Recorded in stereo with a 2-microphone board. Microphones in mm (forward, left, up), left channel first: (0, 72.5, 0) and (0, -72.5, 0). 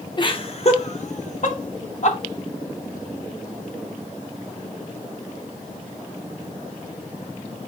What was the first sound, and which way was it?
Laughter, 30° left (ahead or behind).